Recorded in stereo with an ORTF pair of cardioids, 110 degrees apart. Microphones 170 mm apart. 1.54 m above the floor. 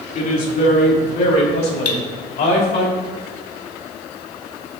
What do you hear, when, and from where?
0.1 s a woman speaking: 50° left, 3 m; by 2.9 s 75° left, 4.5 m
1.9 s cutlery clinking: 60° left, 2.5 m